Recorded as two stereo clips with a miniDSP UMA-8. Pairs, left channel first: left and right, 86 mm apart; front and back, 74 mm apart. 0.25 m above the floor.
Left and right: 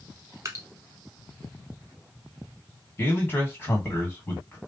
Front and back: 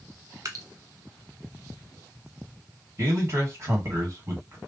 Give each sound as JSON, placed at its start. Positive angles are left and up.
{"t": 0.5, "sound": "dripping", "azimuth_deg": -145, "distance_m": 0.7}
{"t": 3.0, "sound": "a man speaking", "azimuth_deg": 145, "distance_m": 1.7}